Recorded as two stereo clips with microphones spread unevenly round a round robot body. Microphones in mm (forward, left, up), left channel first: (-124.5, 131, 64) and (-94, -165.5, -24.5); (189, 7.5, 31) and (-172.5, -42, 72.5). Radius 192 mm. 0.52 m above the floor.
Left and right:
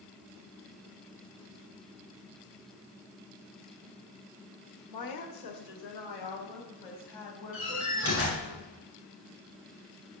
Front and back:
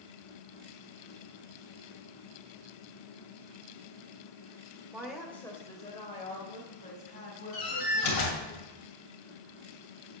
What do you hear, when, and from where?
4.9 s a woman speaking: 100° left, 1.6 m; by 8.5 s 75° left, 5 m
7.5 s a door slam: 35° left, 2.5 m